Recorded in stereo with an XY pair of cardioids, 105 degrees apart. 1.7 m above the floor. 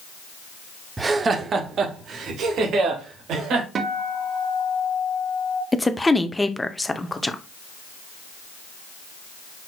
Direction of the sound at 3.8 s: 55° right.